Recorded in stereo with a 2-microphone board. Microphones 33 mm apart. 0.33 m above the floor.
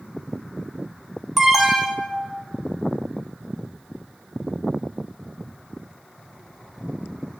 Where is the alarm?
10° right (ahead or behind), 0.6 m.